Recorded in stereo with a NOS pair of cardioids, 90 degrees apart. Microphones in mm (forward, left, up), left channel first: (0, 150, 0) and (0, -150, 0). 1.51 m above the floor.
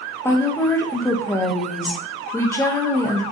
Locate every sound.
0.2 s a woman speaking: 10° left, 0.6 m